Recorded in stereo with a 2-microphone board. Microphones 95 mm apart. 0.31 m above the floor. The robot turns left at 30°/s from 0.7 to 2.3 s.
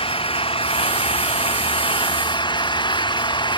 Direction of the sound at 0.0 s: 105° left.